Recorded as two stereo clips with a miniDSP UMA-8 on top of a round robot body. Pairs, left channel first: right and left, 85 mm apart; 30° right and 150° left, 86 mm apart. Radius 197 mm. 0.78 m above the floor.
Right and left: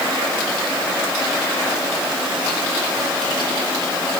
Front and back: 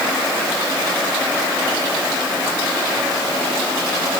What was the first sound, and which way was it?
Only background noise.